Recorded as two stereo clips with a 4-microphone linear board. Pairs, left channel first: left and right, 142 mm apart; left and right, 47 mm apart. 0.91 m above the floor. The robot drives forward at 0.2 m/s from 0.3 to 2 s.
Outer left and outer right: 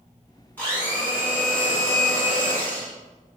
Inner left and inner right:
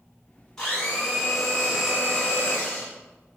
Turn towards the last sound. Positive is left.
turn(degrees=10)  # may be behind; listen again after turning